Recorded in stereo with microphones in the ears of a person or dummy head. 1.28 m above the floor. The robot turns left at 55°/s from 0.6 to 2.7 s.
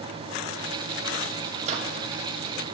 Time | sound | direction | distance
1.6 | a microwave | 45° right (ahead or behind) | 1.9 m